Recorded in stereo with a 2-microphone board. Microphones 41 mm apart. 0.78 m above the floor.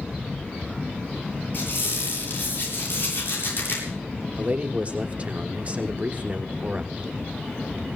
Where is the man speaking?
30° right (ahead or behind), 1.6 m.